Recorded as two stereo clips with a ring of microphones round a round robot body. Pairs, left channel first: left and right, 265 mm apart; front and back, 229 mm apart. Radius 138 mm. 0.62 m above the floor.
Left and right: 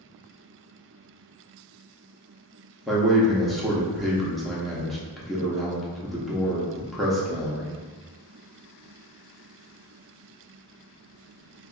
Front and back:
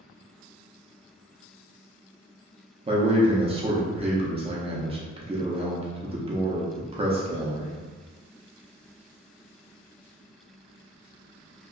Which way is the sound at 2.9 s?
Straight behind.